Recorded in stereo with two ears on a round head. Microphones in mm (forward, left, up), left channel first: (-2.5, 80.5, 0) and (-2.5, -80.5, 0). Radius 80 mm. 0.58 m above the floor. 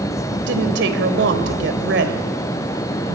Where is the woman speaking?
70° right (ahead or behind), 3 m.